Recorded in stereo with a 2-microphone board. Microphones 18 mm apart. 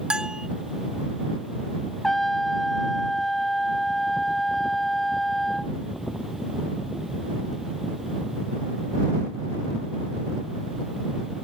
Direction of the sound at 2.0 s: 20° left (ahead or behind).